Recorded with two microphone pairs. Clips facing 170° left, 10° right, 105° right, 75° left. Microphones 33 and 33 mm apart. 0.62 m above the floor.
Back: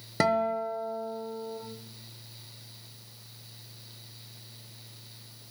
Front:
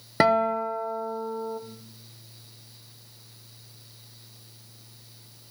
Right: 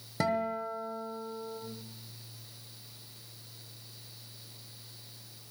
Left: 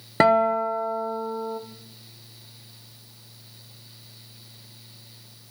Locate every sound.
0.2 s a guitar: 50° left, 1.0 m